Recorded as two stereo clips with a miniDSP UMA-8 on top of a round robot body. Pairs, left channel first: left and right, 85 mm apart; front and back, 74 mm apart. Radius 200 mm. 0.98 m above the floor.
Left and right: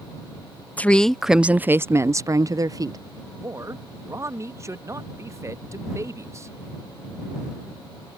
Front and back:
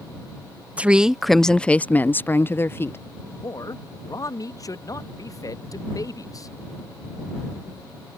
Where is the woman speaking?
135° left; by 3.0 s 55° right.